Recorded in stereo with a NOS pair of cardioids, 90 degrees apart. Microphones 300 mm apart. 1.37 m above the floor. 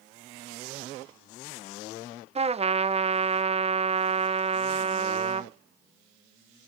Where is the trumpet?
20° right, 0.6 m.